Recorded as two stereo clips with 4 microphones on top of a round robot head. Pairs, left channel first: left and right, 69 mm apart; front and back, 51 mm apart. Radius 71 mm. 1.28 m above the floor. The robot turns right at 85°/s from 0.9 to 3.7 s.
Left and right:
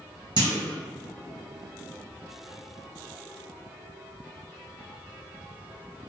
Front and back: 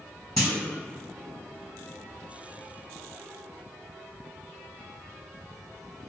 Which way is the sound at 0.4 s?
90° right.